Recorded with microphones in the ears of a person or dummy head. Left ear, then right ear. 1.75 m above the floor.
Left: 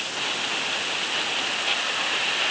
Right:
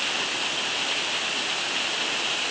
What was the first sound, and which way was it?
Only background noise.